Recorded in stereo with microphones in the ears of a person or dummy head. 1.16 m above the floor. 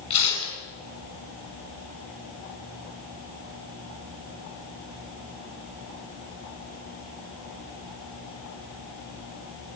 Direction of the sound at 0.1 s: 30° left (ahead or behind).